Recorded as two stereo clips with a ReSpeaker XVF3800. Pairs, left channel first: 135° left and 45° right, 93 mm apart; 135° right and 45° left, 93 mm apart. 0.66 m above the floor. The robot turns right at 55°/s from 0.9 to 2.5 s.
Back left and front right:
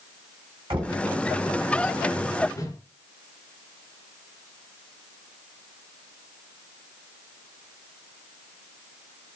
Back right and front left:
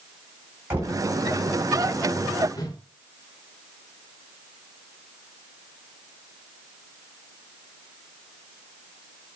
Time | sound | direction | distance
0.7 | knocking | 20° right | 3 m
2.5 | a whoosh | 170° right | 1.0 m